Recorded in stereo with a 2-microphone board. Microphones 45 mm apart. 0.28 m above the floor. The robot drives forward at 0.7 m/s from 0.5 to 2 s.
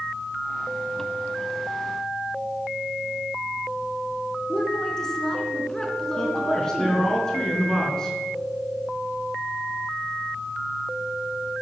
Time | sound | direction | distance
4.5 | a woman speaking | 10° left (ahead or behind) | 4 m
6.2 | a man speaking | 15° left (ahead or behind) | 4 m